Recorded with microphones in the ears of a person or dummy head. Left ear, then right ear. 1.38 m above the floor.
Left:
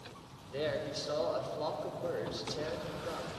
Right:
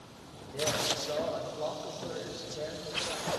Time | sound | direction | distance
0.5 | a man speaking | 75° left (ahead or behind) | 4 m